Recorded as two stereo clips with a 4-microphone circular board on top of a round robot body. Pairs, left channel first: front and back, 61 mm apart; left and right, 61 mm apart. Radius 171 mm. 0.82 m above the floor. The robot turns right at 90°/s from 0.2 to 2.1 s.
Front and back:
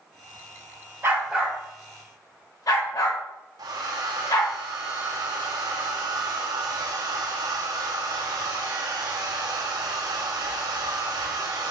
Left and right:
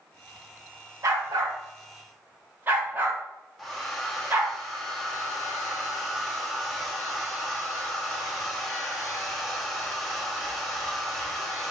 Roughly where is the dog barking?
Behind right.